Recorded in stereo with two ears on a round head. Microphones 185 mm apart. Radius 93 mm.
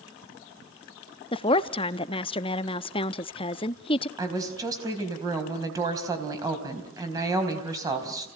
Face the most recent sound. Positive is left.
turn(degrees=-15)  # may be behind; listen again after turning